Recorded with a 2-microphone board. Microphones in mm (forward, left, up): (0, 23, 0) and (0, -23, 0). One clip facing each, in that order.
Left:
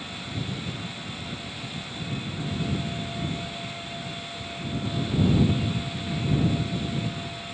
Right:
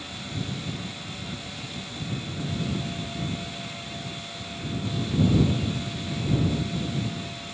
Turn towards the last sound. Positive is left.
No sound to turn to.